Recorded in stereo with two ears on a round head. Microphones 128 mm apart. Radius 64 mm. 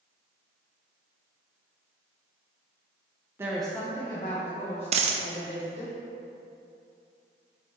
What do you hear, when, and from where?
3.4 s a woman speaking: 15° right (ahead or behind), 0.6 m; by 5.9 s 55° left (ahead or behind), 2.5 m
4.9 s a dropped coin: 45° right (ahead or behind), 0.5 m